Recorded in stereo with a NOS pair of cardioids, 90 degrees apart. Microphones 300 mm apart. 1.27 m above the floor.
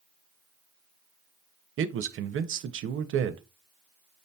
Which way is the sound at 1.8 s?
45° right.